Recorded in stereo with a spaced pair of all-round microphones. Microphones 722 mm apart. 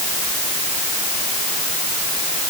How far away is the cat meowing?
I don't hear a cat meowing.